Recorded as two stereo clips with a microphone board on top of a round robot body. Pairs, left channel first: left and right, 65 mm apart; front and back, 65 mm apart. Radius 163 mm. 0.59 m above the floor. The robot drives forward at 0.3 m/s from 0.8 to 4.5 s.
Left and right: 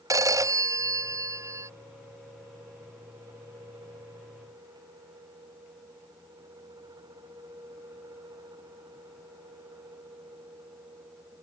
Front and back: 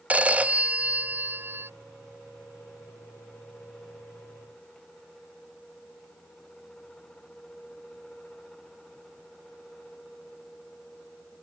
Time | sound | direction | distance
0.1 | a phone ringing | 110° right | ?